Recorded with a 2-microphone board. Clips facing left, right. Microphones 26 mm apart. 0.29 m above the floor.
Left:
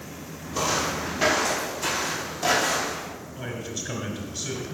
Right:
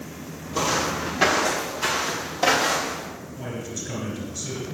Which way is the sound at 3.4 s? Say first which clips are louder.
Even; 30° left (ahead or behind).